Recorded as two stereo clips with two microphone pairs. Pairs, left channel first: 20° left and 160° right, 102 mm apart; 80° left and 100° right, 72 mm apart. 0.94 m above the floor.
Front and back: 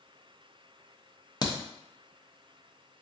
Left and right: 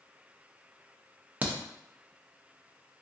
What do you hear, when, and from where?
1.4 s a crack: 30° right, 0.6 m